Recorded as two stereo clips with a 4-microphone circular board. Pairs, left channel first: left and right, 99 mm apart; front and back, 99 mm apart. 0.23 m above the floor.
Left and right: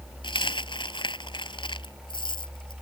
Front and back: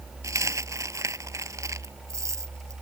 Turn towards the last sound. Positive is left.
turn(degrees=125)